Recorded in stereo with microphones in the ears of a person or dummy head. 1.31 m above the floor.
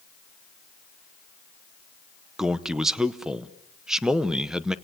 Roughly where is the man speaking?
Centre.